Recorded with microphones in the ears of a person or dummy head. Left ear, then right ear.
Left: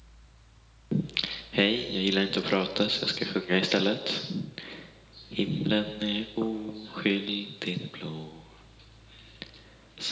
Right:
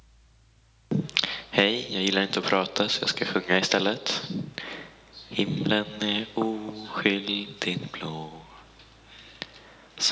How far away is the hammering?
No hammering in this recording.